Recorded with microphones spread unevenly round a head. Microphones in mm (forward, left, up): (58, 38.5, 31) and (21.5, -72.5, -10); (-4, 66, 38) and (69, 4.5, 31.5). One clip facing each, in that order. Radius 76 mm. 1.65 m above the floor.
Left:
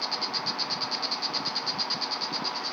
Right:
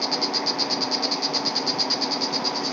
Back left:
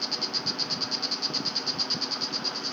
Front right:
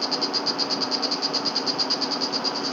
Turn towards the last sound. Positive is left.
turn(degrees=-85)